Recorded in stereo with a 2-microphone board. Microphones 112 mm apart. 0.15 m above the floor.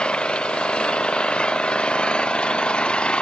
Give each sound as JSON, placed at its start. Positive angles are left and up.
{"t": 0.0, "sound": "an engine running", "side_deg": 10}